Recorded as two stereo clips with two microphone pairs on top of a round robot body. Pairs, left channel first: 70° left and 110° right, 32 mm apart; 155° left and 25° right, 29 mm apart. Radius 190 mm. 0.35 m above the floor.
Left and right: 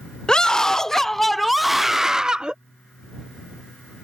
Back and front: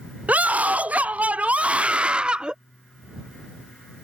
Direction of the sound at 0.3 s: Straight ahead.